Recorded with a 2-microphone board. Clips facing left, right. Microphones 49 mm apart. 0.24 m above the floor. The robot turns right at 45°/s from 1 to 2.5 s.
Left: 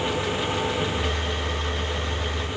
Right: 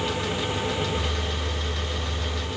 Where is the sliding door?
I don't hear a sliding door.